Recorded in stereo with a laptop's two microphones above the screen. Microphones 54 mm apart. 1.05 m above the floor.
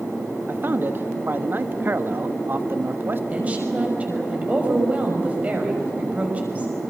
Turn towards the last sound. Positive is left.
turn(degrees=-25)  # may be behind; listen again after turning